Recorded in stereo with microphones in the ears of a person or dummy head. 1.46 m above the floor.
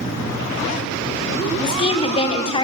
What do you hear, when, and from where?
1.6 s a woman speaking: 30° left (ahead or behind), 0.9 m